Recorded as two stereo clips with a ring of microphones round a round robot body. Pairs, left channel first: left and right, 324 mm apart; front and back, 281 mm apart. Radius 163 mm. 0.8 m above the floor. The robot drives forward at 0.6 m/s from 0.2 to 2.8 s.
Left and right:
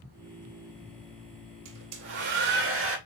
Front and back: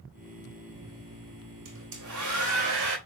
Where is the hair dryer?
130° right, 2.5 m; by 3.0 s 140° right, 3 m.